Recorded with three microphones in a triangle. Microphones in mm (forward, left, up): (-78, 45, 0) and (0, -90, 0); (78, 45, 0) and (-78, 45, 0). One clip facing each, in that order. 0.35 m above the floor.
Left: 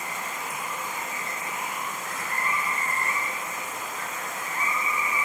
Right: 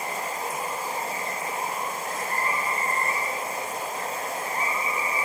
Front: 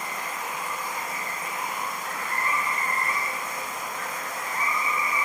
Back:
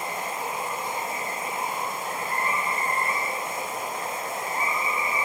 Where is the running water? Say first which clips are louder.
Right 4 dB, back 3 dB; 115° right.